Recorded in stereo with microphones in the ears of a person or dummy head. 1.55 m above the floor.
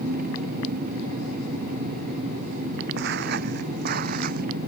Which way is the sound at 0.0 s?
45° right (ahead or behind).